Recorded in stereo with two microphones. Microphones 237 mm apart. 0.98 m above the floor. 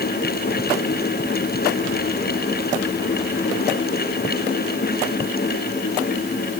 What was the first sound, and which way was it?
Only background noise.